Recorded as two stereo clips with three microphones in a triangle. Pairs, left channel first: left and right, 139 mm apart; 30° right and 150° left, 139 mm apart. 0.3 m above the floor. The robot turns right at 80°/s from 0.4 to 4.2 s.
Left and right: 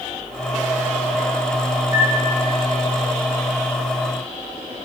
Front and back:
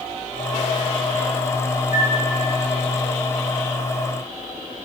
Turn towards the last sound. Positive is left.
turn(degrees=165)